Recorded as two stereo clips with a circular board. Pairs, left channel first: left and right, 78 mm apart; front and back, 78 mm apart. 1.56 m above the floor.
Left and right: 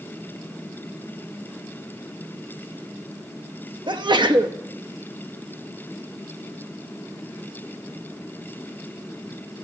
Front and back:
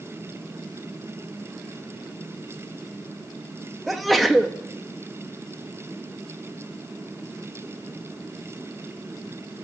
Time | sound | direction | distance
3.9 | a sneeze | 90° right | 0.7 m